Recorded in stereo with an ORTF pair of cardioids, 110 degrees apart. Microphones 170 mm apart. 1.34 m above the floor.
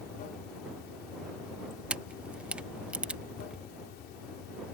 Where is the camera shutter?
5° right.